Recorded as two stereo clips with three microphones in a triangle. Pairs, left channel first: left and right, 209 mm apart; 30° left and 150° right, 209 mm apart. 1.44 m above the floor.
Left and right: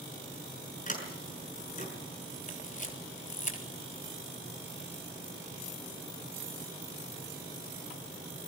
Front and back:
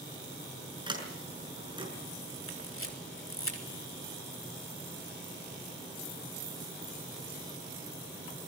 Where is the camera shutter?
40° left, 3.5 m.